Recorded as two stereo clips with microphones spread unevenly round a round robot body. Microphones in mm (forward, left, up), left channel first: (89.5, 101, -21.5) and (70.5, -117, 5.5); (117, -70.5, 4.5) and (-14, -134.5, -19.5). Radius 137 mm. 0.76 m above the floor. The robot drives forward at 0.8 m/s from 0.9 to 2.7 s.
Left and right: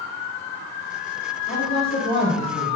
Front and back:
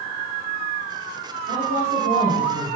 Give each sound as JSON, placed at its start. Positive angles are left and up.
{"t": 1.5, "sound": "a woman speaking", "azimuth_deg": 140, "distance_m": 2.5}